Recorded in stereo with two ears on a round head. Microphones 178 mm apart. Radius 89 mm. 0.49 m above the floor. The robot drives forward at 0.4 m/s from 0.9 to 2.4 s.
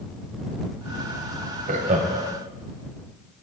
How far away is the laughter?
About 2.5 m.